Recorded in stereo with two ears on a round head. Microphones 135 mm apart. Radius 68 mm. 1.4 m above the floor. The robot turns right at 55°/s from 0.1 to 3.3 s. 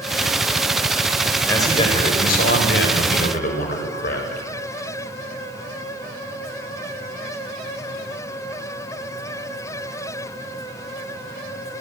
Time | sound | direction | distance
1.5 | a man speaking | 15° left | 5.5 m